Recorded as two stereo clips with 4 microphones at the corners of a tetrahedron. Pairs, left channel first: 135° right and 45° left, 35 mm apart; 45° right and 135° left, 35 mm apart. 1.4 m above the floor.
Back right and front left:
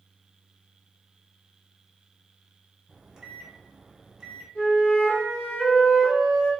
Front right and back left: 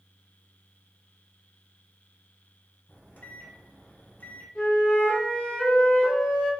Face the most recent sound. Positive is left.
turn(degrees=-110)